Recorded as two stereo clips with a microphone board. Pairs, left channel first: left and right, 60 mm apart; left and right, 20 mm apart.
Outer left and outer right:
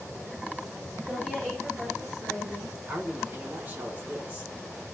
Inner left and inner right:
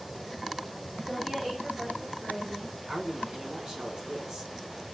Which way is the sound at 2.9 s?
30° right (ahead or behind).